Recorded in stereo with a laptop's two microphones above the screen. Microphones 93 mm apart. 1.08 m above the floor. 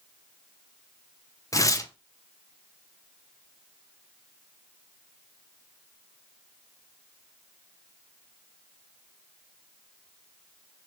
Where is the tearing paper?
35° left (ahead or behind), 0.5 m.